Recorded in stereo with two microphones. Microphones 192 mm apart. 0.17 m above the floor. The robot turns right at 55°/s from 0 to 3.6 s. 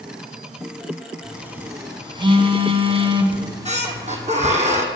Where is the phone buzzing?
5° right (ahead or behind), 1.8 m; by 4.3 s 20° right (ahead or behind), 1.8 m.